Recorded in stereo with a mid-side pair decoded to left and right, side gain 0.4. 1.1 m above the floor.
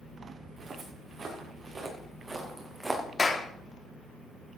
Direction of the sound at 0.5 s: 55° right.